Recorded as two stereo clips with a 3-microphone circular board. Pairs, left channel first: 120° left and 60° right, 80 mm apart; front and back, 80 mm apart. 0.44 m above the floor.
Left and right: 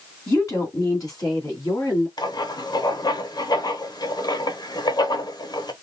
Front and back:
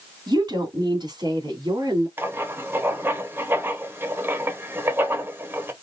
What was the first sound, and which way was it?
A woman speaking, 160° left.